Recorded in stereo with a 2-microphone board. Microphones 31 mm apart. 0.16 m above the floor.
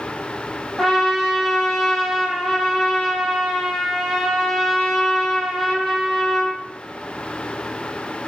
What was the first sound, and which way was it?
A trumpet, 5° left (ahead or behind).